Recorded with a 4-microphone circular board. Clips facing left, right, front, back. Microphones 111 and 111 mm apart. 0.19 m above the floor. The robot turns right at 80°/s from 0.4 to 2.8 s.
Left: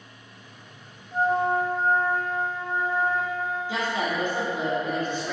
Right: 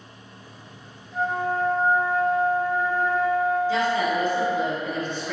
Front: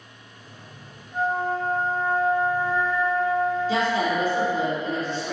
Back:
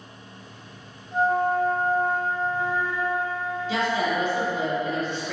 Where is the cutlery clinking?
I don't hear cutlery clinking.